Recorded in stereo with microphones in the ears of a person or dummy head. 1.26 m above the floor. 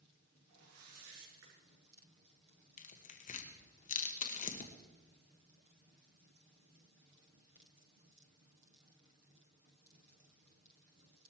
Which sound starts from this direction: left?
Tearing paper, at 2.8 s.